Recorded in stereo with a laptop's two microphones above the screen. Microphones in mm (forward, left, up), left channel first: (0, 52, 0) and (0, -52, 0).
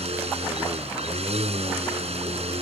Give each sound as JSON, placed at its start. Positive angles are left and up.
{"t": 0.0, "sound": "a machine running", "side_deg": -80}